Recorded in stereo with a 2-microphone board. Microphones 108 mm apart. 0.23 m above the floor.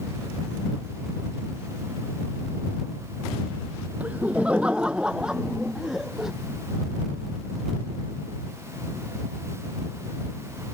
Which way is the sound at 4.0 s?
15° right (ahead or behind).